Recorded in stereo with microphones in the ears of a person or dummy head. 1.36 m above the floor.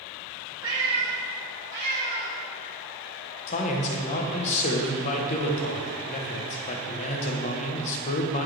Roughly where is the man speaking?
Left.